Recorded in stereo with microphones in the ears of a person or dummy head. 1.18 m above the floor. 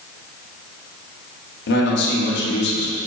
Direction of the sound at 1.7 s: 70° left (ahead or behind).